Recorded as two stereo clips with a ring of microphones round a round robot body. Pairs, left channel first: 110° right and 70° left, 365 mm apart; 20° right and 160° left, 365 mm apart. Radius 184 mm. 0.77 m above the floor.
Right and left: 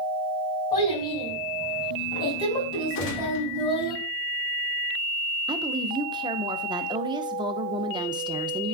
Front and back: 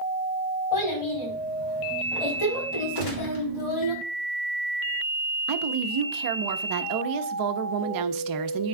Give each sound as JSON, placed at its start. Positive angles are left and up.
{"t": 0.7, "sound": "a child speaking", "azimuth_deg": -40, "distance_m": 4.5}
{"t": 3.0, "sound": "a gunshot", "azimuth_deg": -50, "distance_m": 2.5}
{"t": 5.5, "sound": "a woman speaking", "azimuth_deg": 145, "distance_m": 0.8}